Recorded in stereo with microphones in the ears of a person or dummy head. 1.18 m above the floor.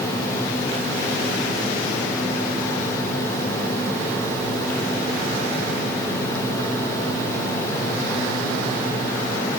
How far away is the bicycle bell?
No bicycle bell in this recording.